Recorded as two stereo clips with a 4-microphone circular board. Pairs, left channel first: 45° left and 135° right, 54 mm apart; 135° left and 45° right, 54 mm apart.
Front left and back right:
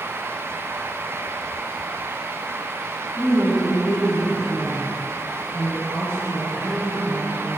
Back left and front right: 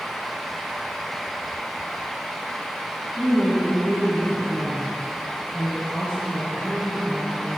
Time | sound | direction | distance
3.2 | a woman speaking | 105° left | 1.9 m